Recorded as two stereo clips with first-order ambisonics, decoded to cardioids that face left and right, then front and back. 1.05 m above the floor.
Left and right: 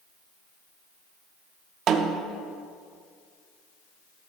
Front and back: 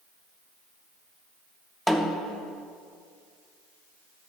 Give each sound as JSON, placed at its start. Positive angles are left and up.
{"t": 1.9, "sound": "a snare drum", "azimuth_deg": -85, "distance_m": 0.6}